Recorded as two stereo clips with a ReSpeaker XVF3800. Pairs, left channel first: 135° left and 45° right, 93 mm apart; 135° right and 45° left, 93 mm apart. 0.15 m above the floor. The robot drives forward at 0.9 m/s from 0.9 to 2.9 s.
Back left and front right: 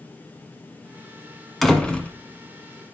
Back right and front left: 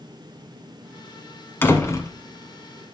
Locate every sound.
1.6 s a door slam: 135° right, 1.2 m; by 2.1 s 160° right, 1.4 m